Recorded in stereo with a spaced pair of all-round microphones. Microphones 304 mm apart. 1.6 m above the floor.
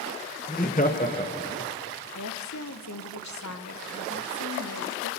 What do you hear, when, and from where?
0.5 s laughter: 30° left (ahead or behind), 0.9 m
2.1 s a woman speaking: 65° left (ahead or behind), 0.8 m